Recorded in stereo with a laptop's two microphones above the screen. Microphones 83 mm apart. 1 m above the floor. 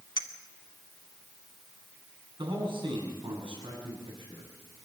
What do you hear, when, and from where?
0.2 s a clink: 65° left (ahead or behind), 1.2 m
2.4 s a man speaking: 85° right, 7.5 m